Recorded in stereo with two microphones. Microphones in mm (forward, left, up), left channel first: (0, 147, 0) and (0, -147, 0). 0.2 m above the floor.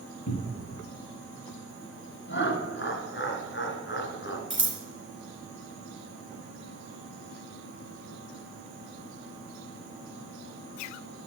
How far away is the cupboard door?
About 2 m.